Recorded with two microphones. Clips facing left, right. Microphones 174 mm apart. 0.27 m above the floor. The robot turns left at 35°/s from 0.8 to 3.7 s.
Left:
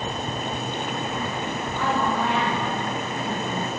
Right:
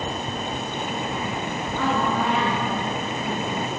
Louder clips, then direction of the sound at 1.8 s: Right 1 dB; 105° right.